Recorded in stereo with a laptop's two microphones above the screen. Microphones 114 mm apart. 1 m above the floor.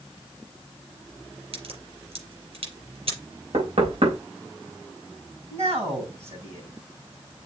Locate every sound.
1.5 s a crack: 65° right (ahead or behind), 5.5 m
3.5 s knocking: 75° right (ahead or behind), 3.5 m
5.5 s a man speaking: 75° right (ahead or behind), 5.5 m